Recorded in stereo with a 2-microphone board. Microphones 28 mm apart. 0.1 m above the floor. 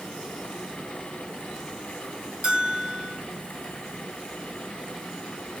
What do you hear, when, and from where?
2.4 s a bell: 45° right (ahead or behind), 2 m